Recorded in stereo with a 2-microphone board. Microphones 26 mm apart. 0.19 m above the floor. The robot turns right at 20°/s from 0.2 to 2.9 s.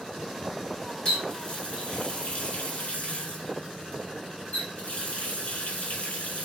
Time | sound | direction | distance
1.1 | a running tap | 35° left | 1.6 m